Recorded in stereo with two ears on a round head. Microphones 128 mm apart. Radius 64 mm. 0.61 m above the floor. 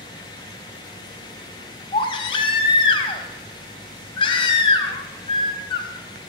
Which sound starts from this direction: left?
A baby crying, at 1.9 s.